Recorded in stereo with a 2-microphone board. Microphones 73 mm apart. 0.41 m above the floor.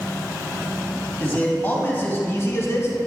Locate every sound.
1.2 s a man speaking: 25° left (ahead or behind), 2.5 m; by 3.0 s 45° left (ahead or behind), 1.3 m